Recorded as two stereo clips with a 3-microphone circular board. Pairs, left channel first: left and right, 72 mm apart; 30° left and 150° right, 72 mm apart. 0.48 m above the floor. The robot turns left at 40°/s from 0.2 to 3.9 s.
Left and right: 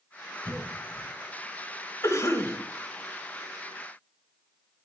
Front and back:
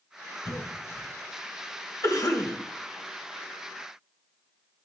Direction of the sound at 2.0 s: 55° left.